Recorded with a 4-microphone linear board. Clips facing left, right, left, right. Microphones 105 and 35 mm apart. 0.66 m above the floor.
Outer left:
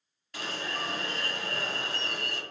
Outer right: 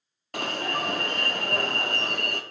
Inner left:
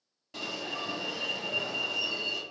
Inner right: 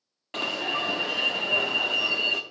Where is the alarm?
60° right (ahead or behind), 0.6 m.